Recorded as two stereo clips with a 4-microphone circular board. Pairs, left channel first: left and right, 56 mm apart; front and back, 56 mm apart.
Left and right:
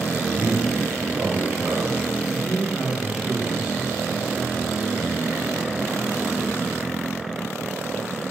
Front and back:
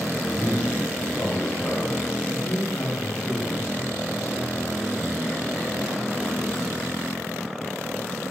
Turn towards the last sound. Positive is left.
turn(degrees=-15)